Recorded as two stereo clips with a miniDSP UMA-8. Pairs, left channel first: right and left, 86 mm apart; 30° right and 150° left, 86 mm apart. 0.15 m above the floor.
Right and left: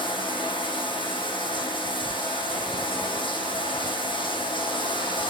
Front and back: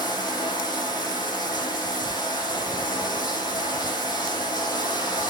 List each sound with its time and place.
0.0 s running water: 70° right, 5 m